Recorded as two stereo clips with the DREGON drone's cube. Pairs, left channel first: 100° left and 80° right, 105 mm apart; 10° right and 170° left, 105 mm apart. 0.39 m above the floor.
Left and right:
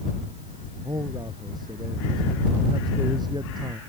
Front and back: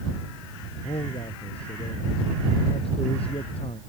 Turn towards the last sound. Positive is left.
turn(degrees=-35)